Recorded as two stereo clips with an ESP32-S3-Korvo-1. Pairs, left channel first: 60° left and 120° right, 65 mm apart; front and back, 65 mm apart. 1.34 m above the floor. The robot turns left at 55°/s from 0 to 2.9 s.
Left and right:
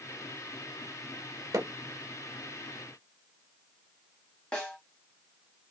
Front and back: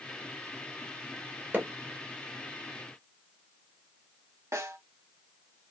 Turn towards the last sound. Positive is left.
turn(degrees=140)